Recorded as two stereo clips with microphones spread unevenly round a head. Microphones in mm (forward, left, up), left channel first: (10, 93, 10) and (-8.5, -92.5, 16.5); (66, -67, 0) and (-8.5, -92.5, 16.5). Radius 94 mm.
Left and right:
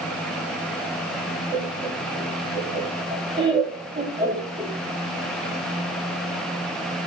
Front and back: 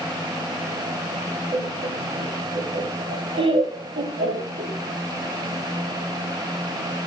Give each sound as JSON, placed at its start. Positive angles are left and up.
{"t": 1.5, "sound": "laughter", "azimuth_deg": -165, "distance_m": 4.5}